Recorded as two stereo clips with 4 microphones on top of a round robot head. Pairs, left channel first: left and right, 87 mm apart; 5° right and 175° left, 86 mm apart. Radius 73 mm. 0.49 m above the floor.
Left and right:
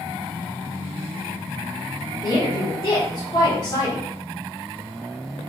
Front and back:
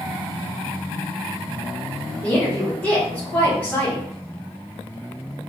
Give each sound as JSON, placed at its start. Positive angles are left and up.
{"t": 2.2, "sound": "a woman speaking", "azimuth_deg": 65, "distance_m": 1.4}